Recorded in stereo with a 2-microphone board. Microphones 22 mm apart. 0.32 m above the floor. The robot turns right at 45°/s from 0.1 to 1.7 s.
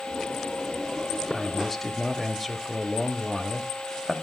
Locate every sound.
1.3 s a man speaking: 5° right (ahead or behind), 1.0 m; by 4.1 s 5° left (ahead or behind), 1.0 m